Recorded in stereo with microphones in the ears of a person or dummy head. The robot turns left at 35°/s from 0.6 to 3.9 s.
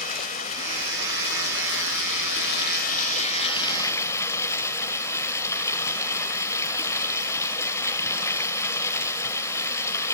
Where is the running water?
135° left, 2 m; by 10.1 s 20° left, 2 m.